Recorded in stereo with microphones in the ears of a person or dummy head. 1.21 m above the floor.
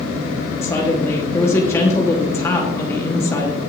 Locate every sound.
0.6 s a woman speaking: 20° left (ahead or behind), 1.1 m